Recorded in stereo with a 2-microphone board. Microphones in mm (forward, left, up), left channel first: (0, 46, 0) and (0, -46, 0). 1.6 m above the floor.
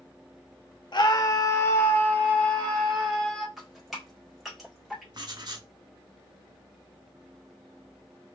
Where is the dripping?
Centre (ahead or behind), 1.4 m.